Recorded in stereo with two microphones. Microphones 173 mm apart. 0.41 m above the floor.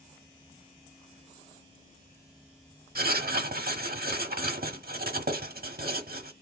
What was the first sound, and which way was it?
Writing, 60° right (ahead or behind).